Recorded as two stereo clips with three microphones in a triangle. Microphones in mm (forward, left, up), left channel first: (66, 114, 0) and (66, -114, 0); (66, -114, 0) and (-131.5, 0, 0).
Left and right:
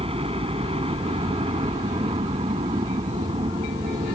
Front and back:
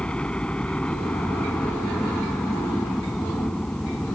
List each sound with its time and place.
0.0 s a helicopter: 110° right